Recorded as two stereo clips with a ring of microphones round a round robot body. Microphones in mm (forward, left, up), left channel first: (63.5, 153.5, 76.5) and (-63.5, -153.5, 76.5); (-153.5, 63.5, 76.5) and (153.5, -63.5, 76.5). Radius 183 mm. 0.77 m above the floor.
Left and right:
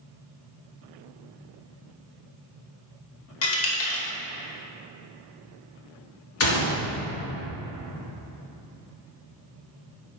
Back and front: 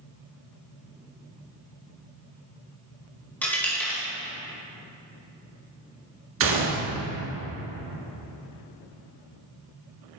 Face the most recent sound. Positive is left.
turn(degrees=25)